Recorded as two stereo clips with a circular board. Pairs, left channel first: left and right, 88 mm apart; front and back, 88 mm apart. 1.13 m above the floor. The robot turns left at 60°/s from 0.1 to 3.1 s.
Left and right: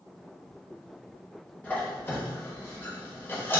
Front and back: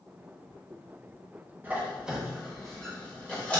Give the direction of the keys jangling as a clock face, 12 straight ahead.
I don't hear keys jangling.